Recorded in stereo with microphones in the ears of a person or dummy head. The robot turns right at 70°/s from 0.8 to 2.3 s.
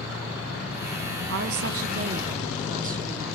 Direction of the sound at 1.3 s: 100° right.